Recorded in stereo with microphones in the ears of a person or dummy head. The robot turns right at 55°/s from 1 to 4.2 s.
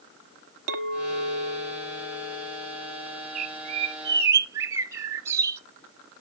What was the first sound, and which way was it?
A clink, 65° right.